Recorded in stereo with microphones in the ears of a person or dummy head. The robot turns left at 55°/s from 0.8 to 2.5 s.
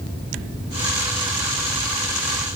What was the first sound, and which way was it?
Only background noise.